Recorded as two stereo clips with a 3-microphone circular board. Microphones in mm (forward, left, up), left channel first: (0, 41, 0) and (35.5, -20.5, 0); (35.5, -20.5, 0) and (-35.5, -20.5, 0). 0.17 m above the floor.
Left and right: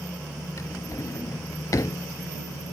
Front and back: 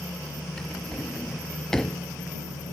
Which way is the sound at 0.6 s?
85° left.